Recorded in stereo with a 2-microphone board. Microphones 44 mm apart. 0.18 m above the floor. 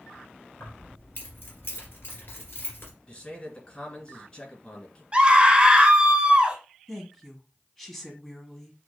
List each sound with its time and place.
0.6 s keys jangling: 65° left (ahead or behind), 2.0 m
3.1 s a man speaking: 30° left (ahead or behind), 2 m
5.1 s a scream: 25° right (ahead or behind), 1.3 m
6.9 s a woman speaking: 10° left (ahead or behind), 1.1 m